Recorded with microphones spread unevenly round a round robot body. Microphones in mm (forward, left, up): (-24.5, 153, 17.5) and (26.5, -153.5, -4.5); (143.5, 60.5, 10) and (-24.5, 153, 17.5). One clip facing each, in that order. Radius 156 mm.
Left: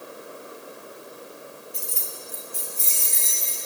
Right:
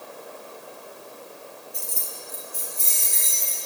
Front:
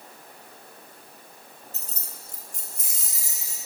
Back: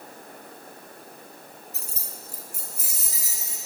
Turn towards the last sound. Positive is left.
turn(degrees=65)